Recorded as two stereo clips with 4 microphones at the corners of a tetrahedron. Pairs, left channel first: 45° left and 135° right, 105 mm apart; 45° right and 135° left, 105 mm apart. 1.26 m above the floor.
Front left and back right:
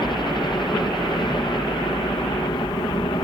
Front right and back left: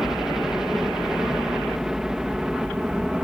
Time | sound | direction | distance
0.0 | a helicopter | 50° left | ?